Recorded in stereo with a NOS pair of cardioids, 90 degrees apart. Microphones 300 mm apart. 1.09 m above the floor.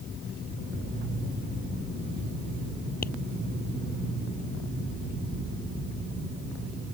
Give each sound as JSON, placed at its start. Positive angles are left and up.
{"t": 3.0, "sound": "tapping", "azimuth_deg": 30}